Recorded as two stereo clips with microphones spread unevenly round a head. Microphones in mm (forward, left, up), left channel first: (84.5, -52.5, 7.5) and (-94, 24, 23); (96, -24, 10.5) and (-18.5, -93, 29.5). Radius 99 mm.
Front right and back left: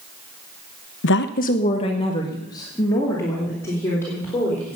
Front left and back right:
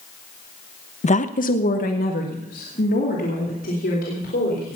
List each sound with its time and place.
1.0 s a woman speaking: straight ahead, 0.7 m; by 4.8 s 55° left, 4.5 m